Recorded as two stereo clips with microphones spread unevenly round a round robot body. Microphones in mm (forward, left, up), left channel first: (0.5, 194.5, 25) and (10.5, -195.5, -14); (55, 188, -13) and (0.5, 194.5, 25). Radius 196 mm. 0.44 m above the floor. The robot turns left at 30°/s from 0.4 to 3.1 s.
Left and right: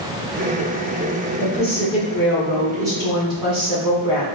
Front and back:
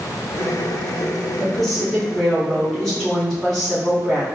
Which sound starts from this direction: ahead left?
A woman speaking, at 1.4 s.